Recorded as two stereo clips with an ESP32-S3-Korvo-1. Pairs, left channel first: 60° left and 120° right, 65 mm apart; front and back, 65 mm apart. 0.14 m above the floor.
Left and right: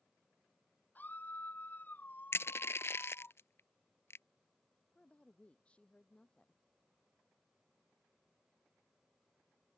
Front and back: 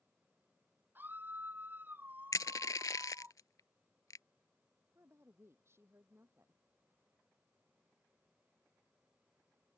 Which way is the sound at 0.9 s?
120° left.